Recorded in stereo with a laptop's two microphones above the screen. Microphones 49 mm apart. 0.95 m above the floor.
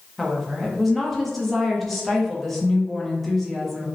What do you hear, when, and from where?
0.2 s a woman speaking: 5° left (ahead or behind), 0.7 m